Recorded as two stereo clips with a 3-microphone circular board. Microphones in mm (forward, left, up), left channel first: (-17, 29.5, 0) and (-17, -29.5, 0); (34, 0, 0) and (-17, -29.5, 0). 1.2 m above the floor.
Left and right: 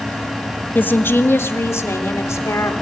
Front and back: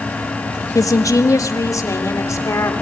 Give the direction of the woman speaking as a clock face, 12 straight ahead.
11 o'clock.